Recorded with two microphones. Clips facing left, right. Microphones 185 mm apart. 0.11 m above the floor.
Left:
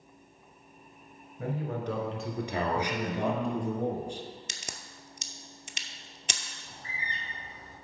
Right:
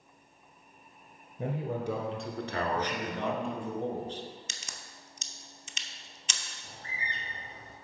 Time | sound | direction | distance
1.4 | a man speaking | 25° right (ahead or behind) | 1.2 m
2.8 | a man speaking | 10° left (ahead or behind) | 1.1 m
4.5 | a crack | 65° left (ahead or behind) | 0.6 m
6.6 | a bird | 55° right (ahead or behind) | 3.5 m